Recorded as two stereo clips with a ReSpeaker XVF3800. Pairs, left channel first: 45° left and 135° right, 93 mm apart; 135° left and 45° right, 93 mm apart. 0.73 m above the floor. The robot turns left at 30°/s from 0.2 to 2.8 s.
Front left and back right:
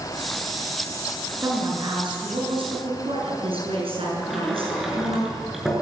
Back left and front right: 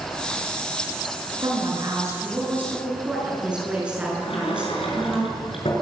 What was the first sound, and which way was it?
A woman speaking, 80° right.